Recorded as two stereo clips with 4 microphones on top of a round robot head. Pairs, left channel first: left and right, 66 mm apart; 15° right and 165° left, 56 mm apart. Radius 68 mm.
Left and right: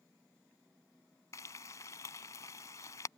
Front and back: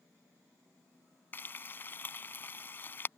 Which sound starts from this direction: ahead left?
Frying, at 1.3 s.